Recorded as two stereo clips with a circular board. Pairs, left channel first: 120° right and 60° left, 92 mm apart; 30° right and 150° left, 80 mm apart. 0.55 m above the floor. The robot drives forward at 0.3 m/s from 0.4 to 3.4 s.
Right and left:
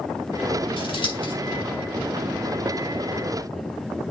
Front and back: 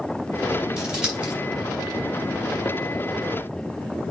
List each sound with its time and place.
0.8 s scissors: 130° right, 4.5 m